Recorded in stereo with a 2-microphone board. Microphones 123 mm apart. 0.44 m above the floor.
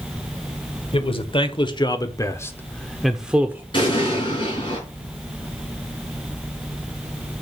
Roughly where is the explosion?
Left.